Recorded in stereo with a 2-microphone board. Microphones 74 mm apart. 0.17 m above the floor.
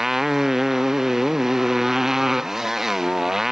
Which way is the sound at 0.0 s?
5° right (ahead or behind).